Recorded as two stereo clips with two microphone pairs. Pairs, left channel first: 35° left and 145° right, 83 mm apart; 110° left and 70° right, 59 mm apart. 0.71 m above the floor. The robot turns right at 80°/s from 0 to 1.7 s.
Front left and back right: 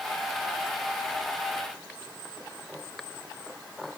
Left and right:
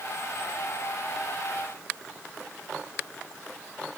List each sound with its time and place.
Only background noise.